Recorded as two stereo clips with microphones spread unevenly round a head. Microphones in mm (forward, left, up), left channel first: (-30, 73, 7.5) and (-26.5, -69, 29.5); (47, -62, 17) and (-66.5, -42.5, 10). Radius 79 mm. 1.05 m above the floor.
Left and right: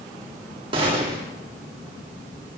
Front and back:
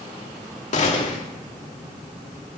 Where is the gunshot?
25° right, 2.5 m.